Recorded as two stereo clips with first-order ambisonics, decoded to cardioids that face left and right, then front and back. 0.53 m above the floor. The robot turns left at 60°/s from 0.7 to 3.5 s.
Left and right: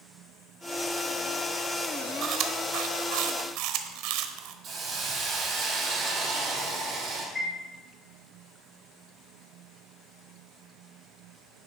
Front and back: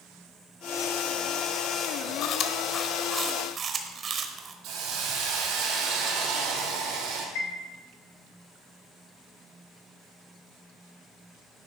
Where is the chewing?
35° right, 1.0 m; by 4.5 s 115° right, 1.0 m.